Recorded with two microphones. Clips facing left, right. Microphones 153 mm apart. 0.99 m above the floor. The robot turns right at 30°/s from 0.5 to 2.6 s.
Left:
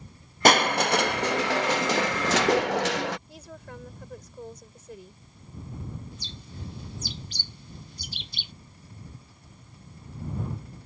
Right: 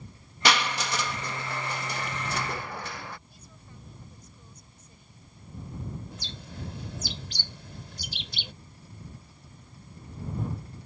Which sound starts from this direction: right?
A bird, at 6.1 s.